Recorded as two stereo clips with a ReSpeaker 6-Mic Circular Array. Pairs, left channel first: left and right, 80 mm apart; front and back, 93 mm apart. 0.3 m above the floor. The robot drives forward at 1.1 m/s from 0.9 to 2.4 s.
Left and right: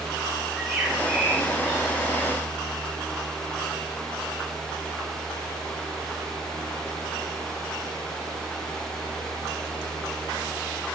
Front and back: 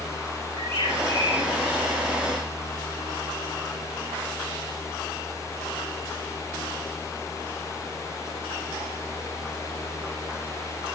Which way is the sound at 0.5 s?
175° right.